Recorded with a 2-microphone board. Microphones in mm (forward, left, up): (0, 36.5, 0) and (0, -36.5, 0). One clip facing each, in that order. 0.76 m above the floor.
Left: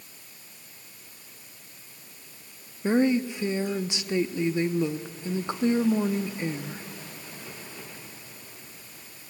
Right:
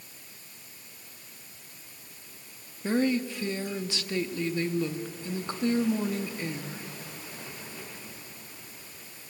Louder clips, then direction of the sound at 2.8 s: Left 4 dB; 20° left (ahead or behind).